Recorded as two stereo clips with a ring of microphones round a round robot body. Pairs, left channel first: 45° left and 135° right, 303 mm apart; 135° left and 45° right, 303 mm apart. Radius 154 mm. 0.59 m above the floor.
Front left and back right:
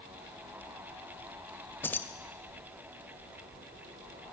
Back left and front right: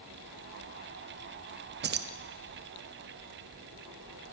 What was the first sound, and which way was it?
Keys jangling, 35° right.